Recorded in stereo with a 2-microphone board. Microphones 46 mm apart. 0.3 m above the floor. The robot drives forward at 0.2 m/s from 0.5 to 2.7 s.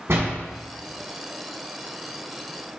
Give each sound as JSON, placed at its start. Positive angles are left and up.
{"t": 0.1, "sound": "a door slam", "side_deg": -65, "distance_m": 2.0}